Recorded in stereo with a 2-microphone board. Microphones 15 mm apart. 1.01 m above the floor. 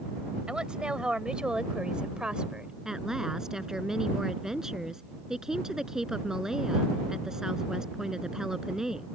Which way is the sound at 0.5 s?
85° right.